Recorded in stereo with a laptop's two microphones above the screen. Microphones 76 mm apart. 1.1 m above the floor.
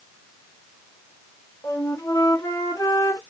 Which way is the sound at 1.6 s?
45° left (ahead or behind).